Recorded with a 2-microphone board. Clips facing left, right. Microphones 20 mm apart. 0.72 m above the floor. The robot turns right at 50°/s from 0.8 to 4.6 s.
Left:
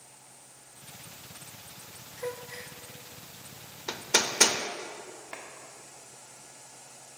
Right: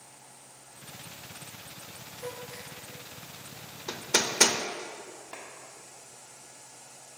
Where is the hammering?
25° left (ahead or behind), 0.5 m; by 4.6 s 5° right (ahead or behind), 0.5 m.